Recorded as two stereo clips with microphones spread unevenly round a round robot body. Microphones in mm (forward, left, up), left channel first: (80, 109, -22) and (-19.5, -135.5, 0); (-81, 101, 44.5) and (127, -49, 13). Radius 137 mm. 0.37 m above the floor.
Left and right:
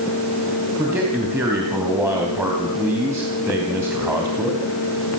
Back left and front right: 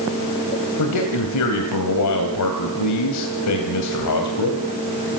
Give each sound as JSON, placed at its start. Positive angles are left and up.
{"t": 0.8, "sound": "a man speaking", "azimuth_deg": 165, "distance_m": 3.0}